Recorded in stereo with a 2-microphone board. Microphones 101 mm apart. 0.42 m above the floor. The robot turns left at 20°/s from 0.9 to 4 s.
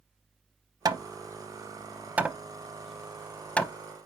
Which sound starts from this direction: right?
Hammering, at 0.8 s.